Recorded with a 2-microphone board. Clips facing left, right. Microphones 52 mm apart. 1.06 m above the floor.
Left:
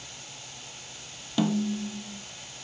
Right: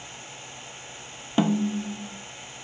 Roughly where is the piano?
I don't hear a piano.